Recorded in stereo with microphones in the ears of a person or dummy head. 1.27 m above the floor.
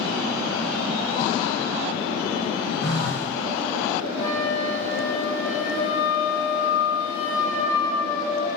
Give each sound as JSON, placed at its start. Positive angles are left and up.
{"t": 2.8, "sound": "a phone buzzing", "side_deg": 35, "distance_m": 1.2}
{"t": 4.2, "sound": "a flute", "side_deg": 20, "distance_m": 1.0}